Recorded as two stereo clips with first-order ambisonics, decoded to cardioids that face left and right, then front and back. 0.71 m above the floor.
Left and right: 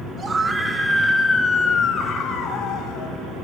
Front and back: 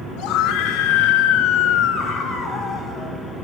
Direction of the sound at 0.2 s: 20° right.